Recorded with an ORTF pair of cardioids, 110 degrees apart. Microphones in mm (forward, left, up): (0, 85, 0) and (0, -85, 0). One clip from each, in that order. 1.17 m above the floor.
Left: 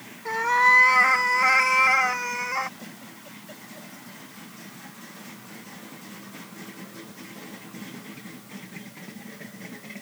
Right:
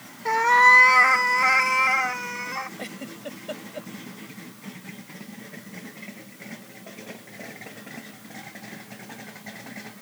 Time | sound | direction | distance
0.2 | a cat meowing | 25° right | ?
2.8 | a giggle | 65° right | ?